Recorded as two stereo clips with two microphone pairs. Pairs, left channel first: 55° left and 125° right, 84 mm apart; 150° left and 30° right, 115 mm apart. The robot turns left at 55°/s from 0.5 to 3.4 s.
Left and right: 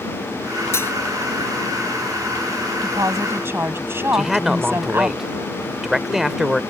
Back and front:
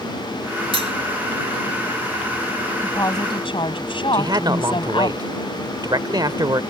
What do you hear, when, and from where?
0.7 s cutlery clinking: straight ahead; by 0.9 s 10° right
2.8 s a woman speaking: 145° right; by 5.1 s straight behind
4.1 s a man speaking: 45° right